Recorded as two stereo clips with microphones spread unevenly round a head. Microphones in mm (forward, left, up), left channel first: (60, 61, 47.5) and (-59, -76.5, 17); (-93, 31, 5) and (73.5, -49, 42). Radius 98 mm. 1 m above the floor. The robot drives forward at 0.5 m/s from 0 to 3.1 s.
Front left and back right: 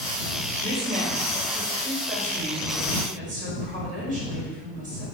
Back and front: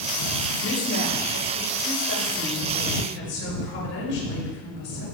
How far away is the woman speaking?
About 4.5 m.